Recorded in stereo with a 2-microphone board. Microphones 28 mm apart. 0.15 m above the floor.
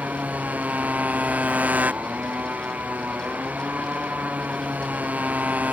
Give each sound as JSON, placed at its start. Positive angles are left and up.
{"t": 0.0, "sound": "a motorcycle", "side_deg": -70}